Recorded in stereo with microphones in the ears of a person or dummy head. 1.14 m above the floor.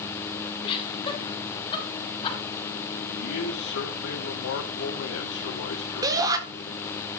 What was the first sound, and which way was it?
Laughter, 30° left (ahead or behind).